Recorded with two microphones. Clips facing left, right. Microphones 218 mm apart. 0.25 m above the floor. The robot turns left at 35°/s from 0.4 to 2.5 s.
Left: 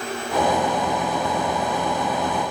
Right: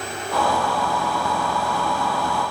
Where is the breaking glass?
I don't hear breaking glass.